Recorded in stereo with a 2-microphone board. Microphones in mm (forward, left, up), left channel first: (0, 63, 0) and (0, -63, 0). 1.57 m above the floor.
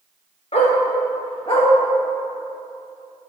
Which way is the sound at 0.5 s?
60° left (ahead or behind).